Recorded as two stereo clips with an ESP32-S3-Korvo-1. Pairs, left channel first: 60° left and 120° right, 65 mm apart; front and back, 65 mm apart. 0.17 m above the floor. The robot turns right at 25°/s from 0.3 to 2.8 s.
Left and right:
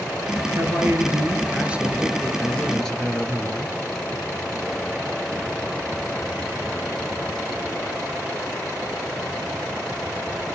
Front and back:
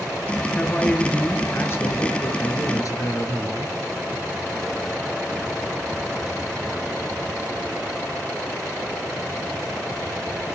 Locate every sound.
0.6 s a man speaking: 80° right, 3 m; by 3.8 s 20° right, 3 m